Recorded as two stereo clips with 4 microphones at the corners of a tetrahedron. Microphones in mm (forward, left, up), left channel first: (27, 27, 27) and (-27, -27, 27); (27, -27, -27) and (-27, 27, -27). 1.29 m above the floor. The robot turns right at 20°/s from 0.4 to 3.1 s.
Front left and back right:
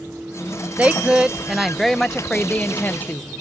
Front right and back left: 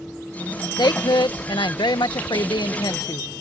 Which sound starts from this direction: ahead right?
A woman speaking, at 0.8 s.